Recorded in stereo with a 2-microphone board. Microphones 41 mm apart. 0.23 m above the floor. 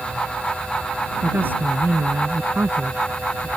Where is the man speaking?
55° right (ahead or behind).